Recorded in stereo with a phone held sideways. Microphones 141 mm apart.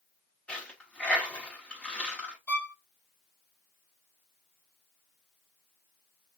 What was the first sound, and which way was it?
A dropped coin, 10° left (ahead or behind).